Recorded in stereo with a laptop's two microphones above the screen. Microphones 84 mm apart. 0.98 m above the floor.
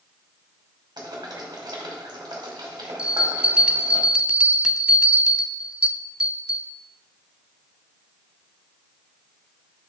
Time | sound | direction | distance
1.0 | boiling | 60° right (ahead or behind) | 2.5 m
3.0 | a bell | 10° right (ahead or behind) | 0.6 m